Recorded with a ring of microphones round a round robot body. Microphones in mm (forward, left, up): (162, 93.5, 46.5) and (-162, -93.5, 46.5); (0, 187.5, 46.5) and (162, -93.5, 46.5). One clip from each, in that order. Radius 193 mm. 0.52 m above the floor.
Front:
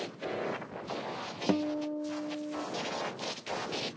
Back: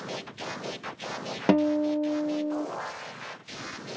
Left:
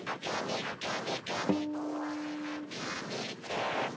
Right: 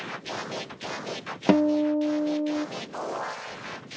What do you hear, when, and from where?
1.5 s a guitar: 90° right, 0.5 m